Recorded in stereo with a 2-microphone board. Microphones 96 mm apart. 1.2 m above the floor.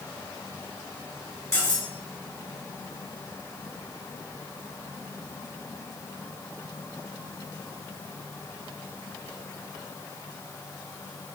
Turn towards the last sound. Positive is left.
turn(degrees=35)  # may be behind; listen again after turning